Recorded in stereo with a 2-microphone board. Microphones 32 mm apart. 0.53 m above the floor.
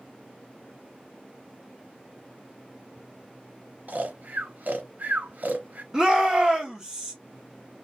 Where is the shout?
20° right (ahead or behind), 1.1 m.